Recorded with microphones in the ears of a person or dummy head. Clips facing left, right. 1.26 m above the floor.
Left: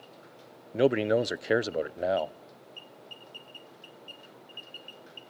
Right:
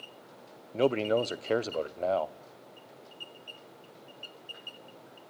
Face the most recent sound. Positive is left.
turn(degrees=15)  # may be behind; listen again after turning